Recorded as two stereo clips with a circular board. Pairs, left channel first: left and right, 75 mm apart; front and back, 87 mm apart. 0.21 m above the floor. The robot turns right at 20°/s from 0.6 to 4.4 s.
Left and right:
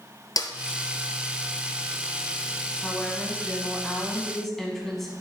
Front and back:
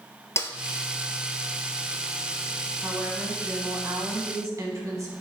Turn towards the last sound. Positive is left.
turn(degrees=175)